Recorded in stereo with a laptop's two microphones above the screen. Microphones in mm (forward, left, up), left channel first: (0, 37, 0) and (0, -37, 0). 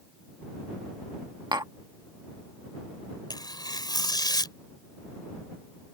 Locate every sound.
1.5 s tapping: 75° right (ahead or behind)
3.3 s tearing paper: 70° left (ahead or behind)